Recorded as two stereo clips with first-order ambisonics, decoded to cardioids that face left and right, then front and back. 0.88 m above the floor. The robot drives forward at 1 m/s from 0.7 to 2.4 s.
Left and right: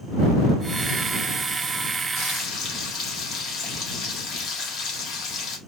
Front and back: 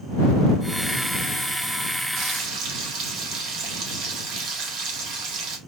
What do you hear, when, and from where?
2.2 s frying: 135° left, 1.4 m; by 5.6 s 145° left, 1.5 m